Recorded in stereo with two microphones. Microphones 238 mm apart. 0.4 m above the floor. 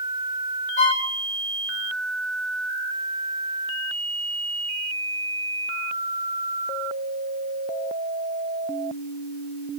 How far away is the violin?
About 1.5 m.